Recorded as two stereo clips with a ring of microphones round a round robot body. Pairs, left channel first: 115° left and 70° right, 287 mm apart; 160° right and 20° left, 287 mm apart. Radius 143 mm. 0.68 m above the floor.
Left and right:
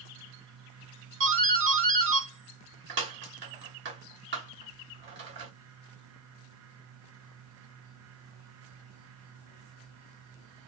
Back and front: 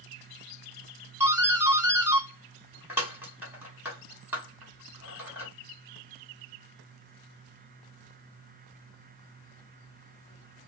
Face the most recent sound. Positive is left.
turn(degrees=-55)